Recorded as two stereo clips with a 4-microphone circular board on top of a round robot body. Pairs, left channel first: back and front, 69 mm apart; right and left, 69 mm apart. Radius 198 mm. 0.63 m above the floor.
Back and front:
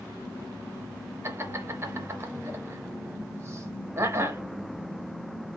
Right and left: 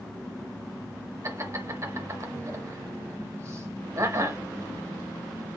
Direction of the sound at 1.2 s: 50° left.